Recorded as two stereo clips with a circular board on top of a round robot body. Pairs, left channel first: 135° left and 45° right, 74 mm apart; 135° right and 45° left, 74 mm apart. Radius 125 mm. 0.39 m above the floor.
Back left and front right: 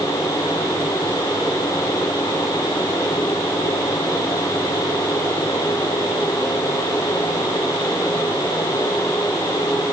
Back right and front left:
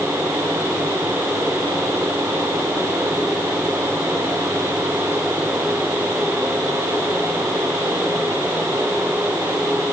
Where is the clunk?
No clunk in this recording.